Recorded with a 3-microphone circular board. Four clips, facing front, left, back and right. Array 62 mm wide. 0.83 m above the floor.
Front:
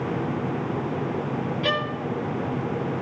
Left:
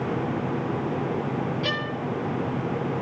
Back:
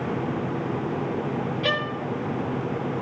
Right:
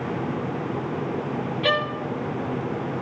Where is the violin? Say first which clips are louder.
Right 5 dB, front 1 dB; 95° right, 0.6 m.